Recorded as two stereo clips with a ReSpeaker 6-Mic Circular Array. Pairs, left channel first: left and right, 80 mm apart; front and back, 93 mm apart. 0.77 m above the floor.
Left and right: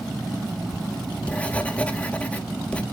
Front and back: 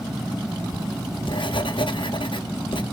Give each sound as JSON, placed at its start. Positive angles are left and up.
{"t": 0.7, "sound": "writing", "azimuth_deg": 20, "distance_m": 0.8}